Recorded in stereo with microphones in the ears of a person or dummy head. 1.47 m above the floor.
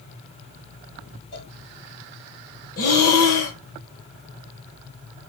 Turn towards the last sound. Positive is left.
turn(degrees=50)  # may be behind; listen again after turning